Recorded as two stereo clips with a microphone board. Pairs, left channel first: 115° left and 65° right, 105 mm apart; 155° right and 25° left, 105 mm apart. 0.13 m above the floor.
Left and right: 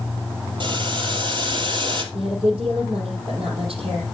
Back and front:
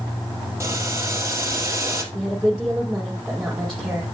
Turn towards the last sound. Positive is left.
turn(degrees=-70)